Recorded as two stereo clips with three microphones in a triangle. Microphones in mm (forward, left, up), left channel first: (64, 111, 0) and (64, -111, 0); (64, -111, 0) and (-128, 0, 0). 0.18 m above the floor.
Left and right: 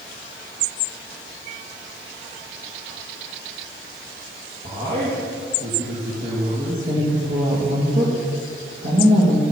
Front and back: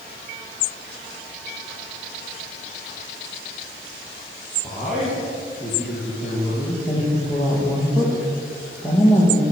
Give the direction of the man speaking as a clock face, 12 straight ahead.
4 o'clock.